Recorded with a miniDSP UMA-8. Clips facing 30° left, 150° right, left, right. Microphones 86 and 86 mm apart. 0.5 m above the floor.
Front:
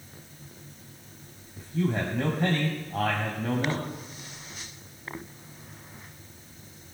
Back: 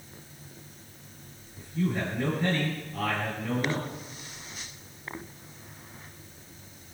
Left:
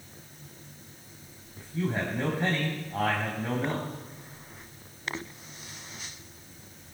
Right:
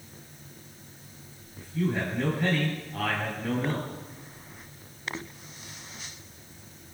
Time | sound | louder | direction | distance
1.6 | a man speaking | front 1 dB, right 2 dB | 30° left | 3 m